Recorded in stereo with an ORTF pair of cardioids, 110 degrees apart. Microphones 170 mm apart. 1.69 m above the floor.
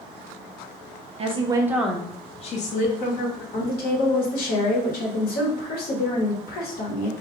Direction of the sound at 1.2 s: 40° right.